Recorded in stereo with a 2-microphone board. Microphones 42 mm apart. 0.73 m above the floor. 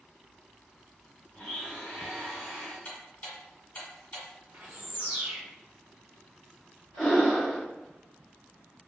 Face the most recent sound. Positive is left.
turn(degrees=5)  # may be behind; listen again after turning